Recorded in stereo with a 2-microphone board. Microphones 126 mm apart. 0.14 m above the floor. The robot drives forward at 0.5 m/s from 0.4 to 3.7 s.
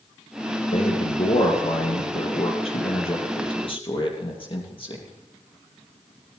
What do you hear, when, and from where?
0.7 s a man speaking: 60° left (ahead or behind), 2.5 m; by 5.0 s 45° left (ahead or behind), 3 m